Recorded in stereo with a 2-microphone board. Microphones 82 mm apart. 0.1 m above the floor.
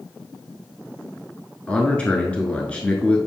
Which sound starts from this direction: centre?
A man speaking, at 1.7 s.